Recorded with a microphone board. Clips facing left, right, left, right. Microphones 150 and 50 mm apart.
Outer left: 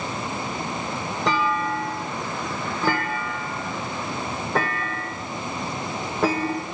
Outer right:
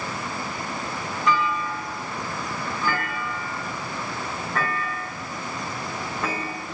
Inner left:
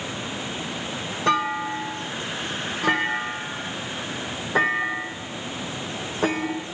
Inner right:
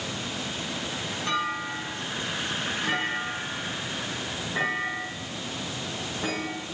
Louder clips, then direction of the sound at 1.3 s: Outer left 1 dB, inner left 7 dB; 85° left.